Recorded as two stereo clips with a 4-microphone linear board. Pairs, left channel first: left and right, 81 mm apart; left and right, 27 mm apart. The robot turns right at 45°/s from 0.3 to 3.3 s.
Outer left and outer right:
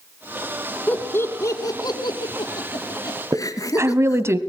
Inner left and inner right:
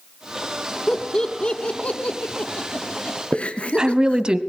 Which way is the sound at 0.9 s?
15° left (ahead or behind).